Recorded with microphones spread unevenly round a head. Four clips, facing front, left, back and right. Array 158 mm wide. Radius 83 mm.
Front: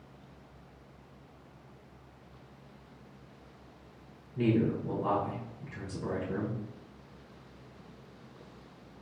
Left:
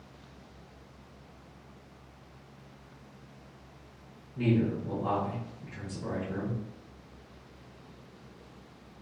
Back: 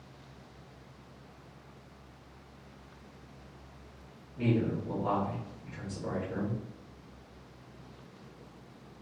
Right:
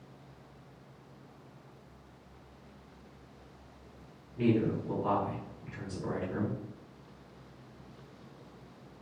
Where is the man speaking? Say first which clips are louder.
Even, front 2 dB; 15° left, 1.8 m.